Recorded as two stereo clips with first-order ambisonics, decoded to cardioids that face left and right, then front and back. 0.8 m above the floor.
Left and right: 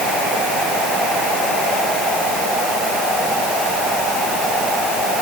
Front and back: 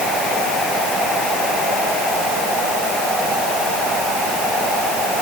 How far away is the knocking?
No knocking in this recording.